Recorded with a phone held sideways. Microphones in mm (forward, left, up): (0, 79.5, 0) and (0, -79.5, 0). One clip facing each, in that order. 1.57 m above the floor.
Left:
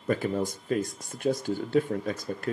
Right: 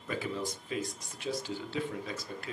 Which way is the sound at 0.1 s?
50° left (ahead or behind).